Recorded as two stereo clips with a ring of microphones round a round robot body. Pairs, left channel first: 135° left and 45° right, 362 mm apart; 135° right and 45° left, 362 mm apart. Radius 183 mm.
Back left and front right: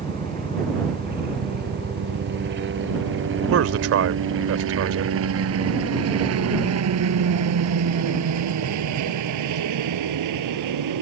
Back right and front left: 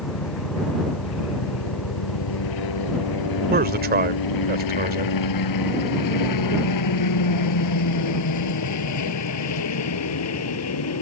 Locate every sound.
0.0 s a helicopter: 115° right; by 11.0 s 85° right
3.5 s a man speaking: 10° right